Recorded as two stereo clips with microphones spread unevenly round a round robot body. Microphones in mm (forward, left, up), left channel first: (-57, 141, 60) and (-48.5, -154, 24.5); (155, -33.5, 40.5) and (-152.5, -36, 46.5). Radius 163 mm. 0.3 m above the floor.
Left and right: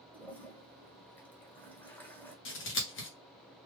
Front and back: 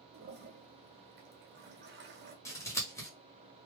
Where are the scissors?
70° left, 1.3 m.